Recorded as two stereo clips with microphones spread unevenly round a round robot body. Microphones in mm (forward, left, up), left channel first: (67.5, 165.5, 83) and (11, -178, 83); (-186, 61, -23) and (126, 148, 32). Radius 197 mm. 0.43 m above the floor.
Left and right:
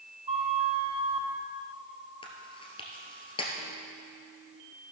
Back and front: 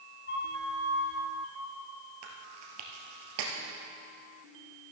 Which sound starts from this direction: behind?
A flute, at 0.3 s.